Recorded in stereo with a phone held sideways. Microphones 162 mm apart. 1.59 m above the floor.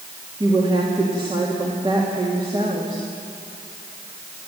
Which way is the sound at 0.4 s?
30° right (ahead or behind).